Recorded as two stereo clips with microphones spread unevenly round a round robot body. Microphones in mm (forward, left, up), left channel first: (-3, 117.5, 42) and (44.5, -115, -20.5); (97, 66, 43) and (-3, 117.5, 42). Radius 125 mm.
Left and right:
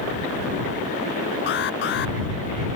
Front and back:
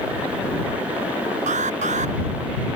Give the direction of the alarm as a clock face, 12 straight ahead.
7 o'clock.